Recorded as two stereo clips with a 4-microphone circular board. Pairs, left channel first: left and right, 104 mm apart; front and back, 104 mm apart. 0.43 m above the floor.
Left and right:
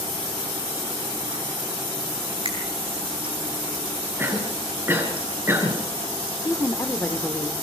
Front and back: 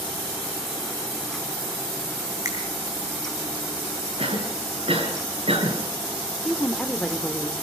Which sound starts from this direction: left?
A woman speaking, at 6.5 s.